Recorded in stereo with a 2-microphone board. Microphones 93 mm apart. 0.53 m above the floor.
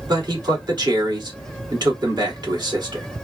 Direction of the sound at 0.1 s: 50° right (ahead or behind).